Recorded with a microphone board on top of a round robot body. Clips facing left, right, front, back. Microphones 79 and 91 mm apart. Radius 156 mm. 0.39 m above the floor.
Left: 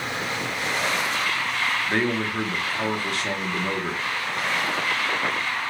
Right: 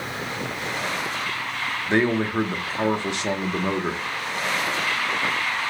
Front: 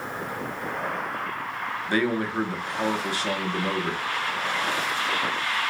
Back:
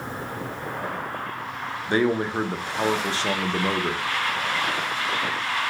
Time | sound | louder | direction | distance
1.9 | a man speaking | right 3 dB, back 3 dB | 140° right | 0.9 m